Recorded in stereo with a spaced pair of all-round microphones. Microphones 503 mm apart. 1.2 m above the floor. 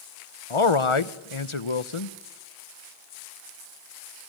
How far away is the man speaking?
About 0.9 m.